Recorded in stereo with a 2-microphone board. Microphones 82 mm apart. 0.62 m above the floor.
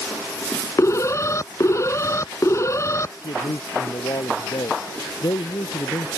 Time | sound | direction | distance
0.8 | an alarm | 35° left (ahead or behind) | ?
3.2 | a man speaking | 60° left (ahead or behind) | ?